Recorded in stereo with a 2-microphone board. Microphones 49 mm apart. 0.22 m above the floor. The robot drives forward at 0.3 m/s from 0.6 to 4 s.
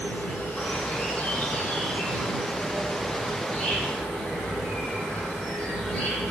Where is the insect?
30° left (ahead or behind), 1.9 m; by 6.3 s 20° left (ahead or behind), 2.5 m.